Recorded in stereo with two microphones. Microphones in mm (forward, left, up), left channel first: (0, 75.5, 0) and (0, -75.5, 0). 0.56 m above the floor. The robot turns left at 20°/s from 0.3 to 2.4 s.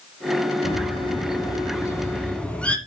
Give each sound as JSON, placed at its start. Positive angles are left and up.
{"t": 0.6, "sound": "a bird", "azimuth_deg": 45, "distance_m": 1.3}